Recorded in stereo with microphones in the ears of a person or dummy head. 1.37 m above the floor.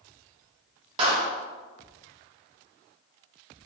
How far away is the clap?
About 1.0 m.